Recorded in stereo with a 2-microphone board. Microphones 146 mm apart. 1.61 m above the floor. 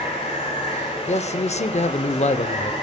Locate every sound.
0.0 s running water: 45° left (ahead or behind), 5.5 m
1.1 s a man speaking: 50° left (ahead or behind), 0.6 m